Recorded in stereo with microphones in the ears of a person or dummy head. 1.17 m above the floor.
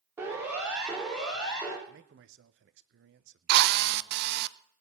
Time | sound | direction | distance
0.2 | a siren | 15° right (ahead or behind) | 4.5 m
1.9 | a man speaking | 55° right (ahead or behind) | 0.8 m
3.5 | a drill | 60° right (ahead or behind) | 0.6 m